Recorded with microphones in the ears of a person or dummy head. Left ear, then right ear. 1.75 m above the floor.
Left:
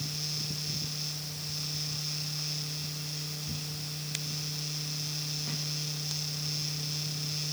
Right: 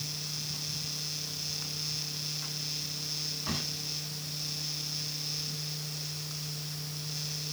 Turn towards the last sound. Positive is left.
No sound to turn to.